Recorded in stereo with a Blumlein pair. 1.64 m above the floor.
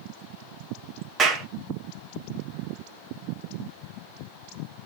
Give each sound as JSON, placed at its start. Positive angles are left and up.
{"t": 1.2, "sound": "a clap", "azimuth_deg": -25, "distance_m": 1.1}